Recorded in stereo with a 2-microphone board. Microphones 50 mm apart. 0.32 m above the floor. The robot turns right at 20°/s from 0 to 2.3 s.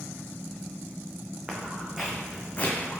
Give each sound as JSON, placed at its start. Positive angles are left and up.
{"t": 1.5, "sound": "footsteps", "side_deg": -25, "distance_m": 1.3}